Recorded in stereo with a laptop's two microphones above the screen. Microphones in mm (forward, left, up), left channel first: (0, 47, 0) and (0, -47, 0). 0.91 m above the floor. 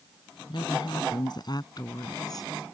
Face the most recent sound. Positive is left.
turn(degrees=40)  # may be behind; listen again after turning